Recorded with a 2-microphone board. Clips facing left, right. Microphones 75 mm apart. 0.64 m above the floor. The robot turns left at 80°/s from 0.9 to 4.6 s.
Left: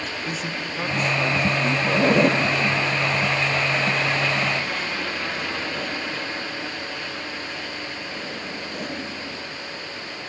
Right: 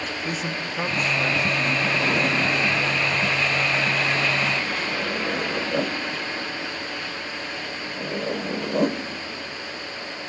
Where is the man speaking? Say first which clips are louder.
Right 1 dB; 160° right, 0.7 m; by 1.8 s 130° left, 0.7 m.